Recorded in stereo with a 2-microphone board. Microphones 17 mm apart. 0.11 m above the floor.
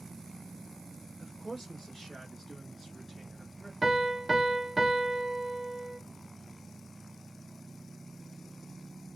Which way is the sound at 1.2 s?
35° left (ahead or behind).